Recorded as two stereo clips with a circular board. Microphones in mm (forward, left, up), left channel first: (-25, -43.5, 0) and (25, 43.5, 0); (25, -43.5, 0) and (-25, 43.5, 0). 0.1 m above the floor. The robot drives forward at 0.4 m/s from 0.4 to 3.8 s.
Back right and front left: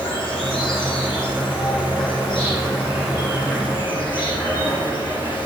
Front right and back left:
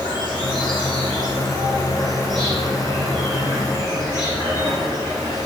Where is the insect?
160° left, 5 m; by 5.5 s 165° left, 6 m.